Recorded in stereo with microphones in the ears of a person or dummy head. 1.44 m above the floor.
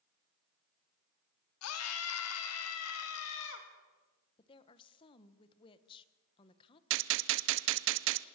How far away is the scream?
About 2.5 m.